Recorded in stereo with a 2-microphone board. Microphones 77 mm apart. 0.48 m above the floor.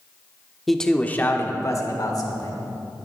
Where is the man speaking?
Centre (ahead or behind), 1.0 m; by 2.6 s 60° left (ahead or behind), 1.8 m.